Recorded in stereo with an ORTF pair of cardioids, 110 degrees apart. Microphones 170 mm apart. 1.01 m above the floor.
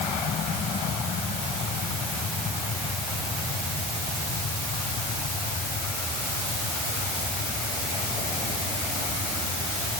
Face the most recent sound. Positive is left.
No sound to turn to.